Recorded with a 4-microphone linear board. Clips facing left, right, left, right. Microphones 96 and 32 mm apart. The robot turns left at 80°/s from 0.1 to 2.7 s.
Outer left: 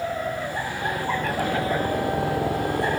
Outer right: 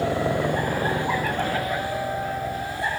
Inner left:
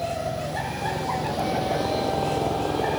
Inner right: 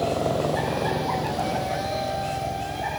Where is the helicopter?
70° right (ahead or behind); by 3.0 s 60° left (ahead or behind).